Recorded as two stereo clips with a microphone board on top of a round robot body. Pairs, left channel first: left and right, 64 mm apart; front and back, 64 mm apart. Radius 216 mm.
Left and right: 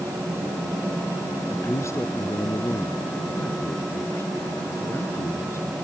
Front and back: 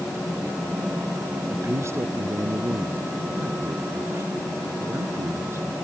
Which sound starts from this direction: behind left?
A man speaking, at 1.5 s.